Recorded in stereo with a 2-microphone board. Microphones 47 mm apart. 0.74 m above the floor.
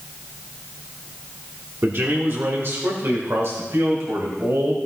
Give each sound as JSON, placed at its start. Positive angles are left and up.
{"t": 1.8, "sound": "a man speaking", "side_deg": -50, "distance_m": 1.4}